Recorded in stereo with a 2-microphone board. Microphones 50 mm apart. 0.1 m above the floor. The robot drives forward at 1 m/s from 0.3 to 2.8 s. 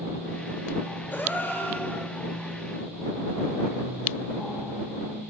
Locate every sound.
1.1 s a gasp: 40° left (ahead or behind), 1.2 m; by 2.1 s 25° left (ahead or behind), 1.7 m